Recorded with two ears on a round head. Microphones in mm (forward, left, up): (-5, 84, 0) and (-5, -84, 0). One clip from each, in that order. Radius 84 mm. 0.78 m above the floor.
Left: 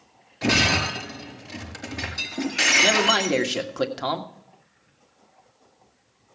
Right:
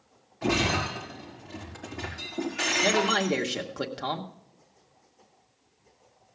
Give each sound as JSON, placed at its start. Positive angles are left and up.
{"t": 0.4, "sound": "breaking glass", "side_deg": 75, "distance_m": 4.5}
{"t": 2.8, "sound": "a man speaking", "side_deg": 15, "distance_m": 1.6}